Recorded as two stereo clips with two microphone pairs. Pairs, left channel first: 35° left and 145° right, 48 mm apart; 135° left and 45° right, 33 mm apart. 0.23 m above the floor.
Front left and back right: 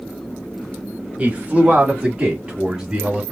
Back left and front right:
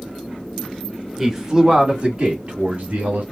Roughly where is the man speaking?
Behind right.